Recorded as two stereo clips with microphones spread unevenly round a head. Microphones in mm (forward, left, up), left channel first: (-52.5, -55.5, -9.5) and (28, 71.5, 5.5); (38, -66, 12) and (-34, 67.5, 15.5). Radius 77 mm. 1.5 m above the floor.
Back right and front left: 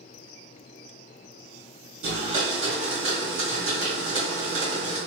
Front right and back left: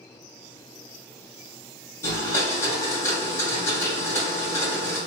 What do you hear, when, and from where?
2.0 s a blender: 10° left, 1.9 m